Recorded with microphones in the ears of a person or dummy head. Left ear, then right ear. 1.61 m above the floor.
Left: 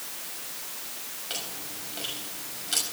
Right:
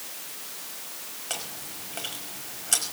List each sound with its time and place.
1.3 s chewing: 30° right (ahead or behind), 5 m